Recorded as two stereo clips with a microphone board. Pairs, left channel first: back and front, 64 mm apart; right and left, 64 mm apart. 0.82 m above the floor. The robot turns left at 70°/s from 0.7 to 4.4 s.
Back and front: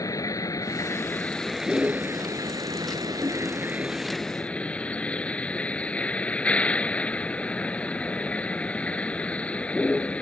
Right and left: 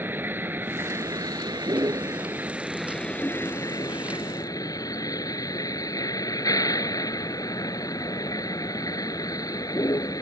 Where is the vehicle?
150° left; by 10.2 s 110° right.